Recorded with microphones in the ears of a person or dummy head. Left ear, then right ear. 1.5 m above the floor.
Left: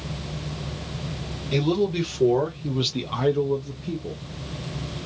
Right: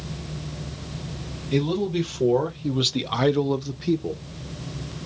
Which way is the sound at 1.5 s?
15° left (ahead or behind).